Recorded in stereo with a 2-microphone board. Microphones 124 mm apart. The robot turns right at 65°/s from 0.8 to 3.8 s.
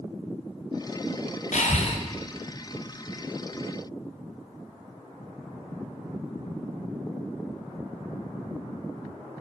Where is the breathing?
75° left (ahead or behind), 1.1 m; by 2.0 s 50° left (ahead or behind), 1.1 m.